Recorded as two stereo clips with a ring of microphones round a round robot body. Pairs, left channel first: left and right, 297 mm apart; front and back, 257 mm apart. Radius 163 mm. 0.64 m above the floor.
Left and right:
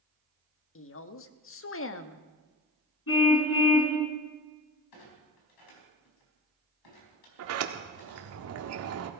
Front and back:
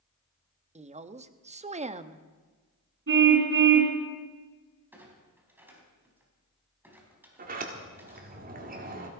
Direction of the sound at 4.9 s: 100° left.